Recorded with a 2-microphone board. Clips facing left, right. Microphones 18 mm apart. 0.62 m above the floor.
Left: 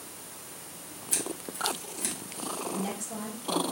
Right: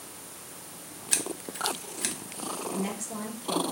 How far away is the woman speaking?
About 2 m.